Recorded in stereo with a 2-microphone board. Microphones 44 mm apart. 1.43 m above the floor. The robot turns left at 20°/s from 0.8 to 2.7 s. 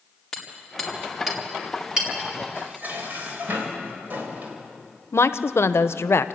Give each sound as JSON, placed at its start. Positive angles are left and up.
{"t": 0.3, "sound": "hammering", "side_deg": 5, "distance_m": 3.5}
{"t": 2.5, "sound": "dishes clattering", "side_deg": -45, "distance_m": 4.0}
{"t": 5.1, "sound": "a woman speaking", "side_deg": 70, "distance_m": 0.7}